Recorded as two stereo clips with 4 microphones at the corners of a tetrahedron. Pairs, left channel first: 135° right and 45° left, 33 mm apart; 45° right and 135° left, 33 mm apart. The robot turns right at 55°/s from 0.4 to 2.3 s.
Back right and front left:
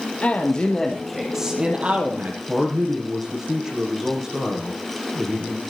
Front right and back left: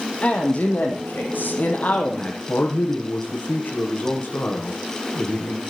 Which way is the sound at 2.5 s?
30° right.